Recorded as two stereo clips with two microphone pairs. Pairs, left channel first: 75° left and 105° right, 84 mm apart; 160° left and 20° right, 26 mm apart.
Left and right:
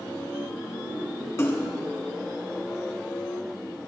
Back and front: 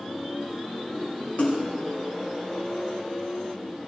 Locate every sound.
1.4 s a splash: 135° left, 3 m